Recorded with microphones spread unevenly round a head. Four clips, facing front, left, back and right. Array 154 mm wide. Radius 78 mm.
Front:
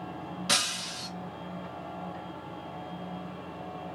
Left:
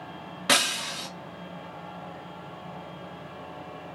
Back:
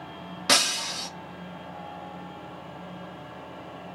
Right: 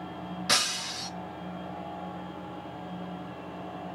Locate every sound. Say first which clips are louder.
0.5 s breaking glass: left 6 dB, back 8 dB; 140° left, 1.7 m